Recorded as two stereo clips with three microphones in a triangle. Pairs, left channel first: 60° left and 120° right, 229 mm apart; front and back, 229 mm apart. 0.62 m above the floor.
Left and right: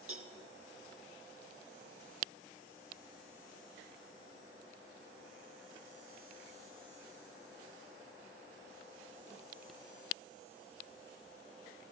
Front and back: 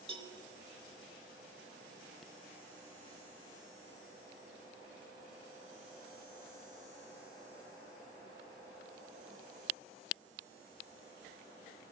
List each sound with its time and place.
0.1 s a cowbell: 120° right, 0.7 m